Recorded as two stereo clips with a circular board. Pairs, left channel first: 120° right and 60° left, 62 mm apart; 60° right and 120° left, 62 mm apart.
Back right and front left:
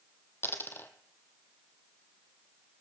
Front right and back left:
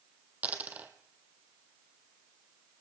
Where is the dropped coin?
175° right, 1.0 m.